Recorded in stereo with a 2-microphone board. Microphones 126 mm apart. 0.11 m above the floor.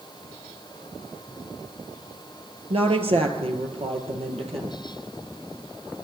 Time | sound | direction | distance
2.7 | a woman speaking | 55° right (ahead or behind) | 2.0 m